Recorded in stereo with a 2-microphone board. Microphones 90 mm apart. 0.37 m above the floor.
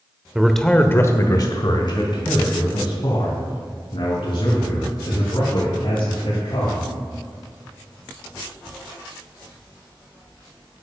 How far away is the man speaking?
About 0.9 m.